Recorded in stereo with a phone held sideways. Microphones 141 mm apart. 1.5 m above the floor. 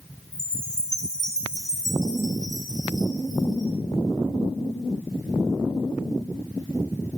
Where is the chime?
5° left (ahead or behind), 3.5 m.